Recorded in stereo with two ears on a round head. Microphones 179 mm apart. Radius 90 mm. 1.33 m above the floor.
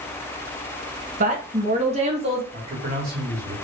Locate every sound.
1.2 s a woman speaking: 40° right (ahead or behind), 1.1 m; by 2.4 s 30° right (ahead or behind), 2.5 m
2.5 s a man speaking: 55° right (ahead or behind), 2 m